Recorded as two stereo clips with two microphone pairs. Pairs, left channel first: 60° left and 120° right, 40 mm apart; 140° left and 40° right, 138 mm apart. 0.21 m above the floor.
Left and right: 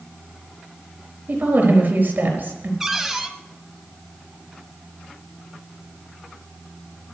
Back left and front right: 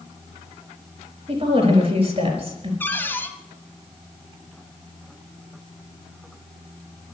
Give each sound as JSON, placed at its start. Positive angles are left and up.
{"t": 1.3, "sound": "a woman speaking", "azimuth_deg": -85, "distance_m": 4.5}
{"t": 2.8, "sound": "a cupboard door", "azimuth_deg": 175, "distance_m": 1.5}